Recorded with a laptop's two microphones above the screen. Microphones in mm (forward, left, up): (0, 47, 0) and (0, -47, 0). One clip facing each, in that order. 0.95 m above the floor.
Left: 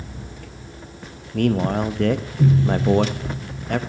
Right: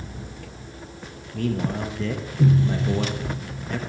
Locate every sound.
1.3 s a man speaking: 65° left (ahead or behind), 0.7 m